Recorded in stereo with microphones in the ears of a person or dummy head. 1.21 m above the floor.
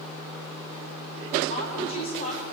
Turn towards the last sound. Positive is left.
turn(degrees=45)  # may be behind; listen again after turning